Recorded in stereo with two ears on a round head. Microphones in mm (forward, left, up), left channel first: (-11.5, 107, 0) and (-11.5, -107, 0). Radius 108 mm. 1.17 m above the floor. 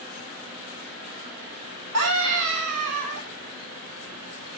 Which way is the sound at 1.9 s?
70° right (ahead or behind).